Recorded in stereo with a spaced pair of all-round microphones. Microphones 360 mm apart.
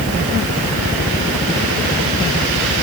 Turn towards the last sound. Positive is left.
No sound to turn to.